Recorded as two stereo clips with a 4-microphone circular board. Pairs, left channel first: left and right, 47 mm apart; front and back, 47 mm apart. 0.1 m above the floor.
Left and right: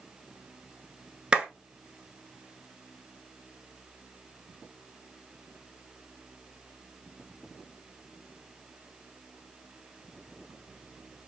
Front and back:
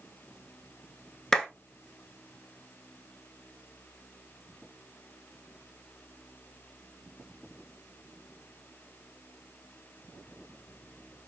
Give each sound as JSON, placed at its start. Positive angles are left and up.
{"t": 1.3, "sound": "a clap", "azimuth_deg": -60, "distance_m": 0.9}